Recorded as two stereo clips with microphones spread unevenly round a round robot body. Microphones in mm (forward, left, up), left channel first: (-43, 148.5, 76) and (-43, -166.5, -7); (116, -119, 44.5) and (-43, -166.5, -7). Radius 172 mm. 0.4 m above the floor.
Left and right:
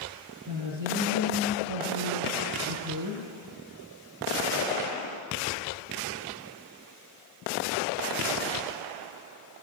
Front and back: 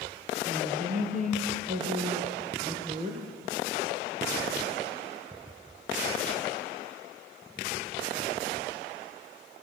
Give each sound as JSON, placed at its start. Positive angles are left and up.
{"t": 0.5, "sound": "a woman speaking", "azimuth_deg": -125, "distance_m": 9.5}